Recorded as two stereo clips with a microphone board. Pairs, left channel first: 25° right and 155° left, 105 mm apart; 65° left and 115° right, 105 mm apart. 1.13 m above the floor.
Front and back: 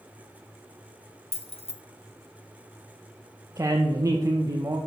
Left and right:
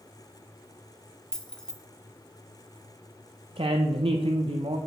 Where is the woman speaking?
145° right, 0.6 m.